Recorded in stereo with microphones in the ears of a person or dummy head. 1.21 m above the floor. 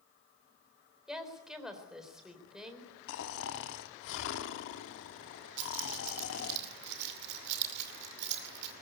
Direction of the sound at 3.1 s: 65° left (ahead or behind).